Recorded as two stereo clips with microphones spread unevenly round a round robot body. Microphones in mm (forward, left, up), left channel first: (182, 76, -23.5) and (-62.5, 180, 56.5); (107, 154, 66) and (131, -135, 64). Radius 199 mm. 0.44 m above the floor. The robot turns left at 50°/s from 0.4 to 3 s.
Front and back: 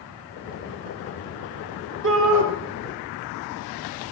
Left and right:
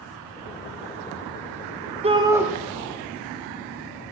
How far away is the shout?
About 1.8 m.